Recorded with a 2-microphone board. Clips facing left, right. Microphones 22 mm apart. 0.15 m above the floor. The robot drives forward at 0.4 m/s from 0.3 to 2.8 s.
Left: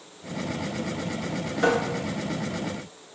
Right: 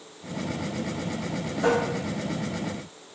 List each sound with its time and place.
1.6 s tapping: 50° left (ahead or behind), 0.8 m; by 1.8 s 55° left (ahead or behind), 0.7 m